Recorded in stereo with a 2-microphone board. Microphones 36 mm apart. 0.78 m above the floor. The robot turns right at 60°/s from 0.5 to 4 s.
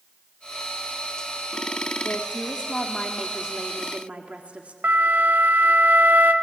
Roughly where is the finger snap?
No finger snap in this recording.